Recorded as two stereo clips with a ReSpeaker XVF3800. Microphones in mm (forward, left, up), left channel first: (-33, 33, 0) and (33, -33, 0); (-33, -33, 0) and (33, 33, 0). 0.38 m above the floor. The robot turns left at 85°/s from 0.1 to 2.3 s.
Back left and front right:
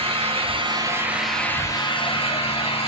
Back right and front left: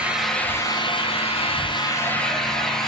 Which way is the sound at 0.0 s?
35° right.